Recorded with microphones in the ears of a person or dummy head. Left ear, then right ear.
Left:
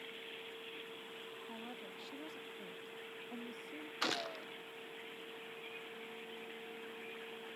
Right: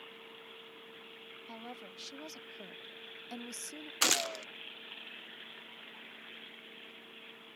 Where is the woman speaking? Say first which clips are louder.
Right 1 dB; 45° right (ahead or behind); by 3.9 s 55° right (ahead or behind).